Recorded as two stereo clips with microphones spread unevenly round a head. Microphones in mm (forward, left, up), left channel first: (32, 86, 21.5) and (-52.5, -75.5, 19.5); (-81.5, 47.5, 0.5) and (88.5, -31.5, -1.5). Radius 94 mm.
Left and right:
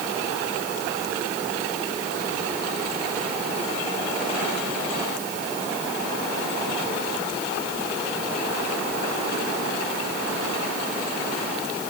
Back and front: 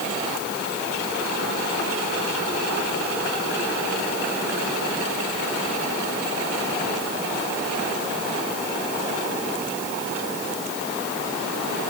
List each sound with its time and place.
Only background noise.